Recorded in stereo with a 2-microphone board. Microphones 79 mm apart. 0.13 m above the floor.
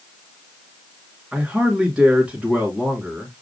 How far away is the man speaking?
About 2 m.